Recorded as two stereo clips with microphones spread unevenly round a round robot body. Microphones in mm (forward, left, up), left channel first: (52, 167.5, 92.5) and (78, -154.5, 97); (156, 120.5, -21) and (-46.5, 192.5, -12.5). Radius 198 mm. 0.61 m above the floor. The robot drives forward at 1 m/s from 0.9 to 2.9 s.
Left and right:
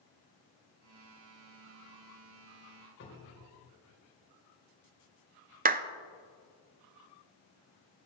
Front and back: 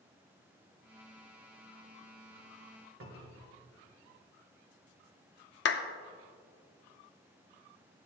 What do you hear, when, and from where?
3.0 s a cupboard door: 150° left, 1.9 m
5.7 s a clap: 25° right, 0.6 m